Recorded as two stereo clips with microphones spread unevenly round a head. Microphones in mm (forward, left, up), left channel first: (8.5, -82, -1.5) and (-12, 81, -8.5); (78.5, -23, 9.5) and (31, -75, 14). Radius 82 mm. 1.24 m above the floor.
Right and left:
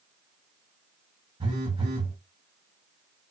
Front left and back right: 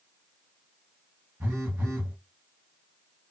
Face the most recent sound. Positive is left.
turn(degrees=155)